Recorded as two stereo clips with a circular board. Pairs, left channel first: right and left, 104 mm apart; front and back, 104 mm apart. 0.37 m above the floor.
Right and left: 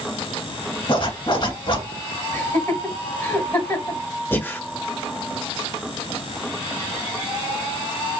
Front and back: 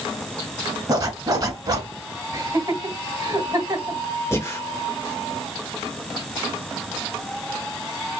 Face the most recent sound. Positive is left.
turn(degrees=-40)